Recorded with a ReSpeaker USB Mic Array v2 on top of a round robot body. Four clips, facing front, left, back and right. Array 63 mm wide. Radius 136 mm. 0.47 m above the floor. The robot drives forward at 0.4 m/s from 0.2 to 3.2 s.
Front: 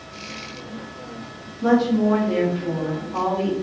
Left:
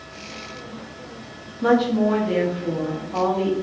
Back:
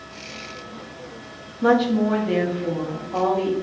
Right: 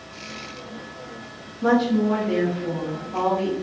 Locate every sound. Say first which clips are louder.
1.6 s a woman speaking: left 1 dB, even; 150° left, 0.8 m; by 3.5 s 165° left, 1.2 m